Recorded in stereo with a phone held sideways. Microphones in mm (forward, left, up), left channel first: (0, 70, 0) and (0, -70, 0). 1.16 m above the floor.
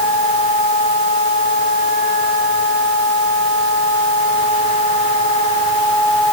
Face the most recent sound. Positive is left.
No sound to turn to.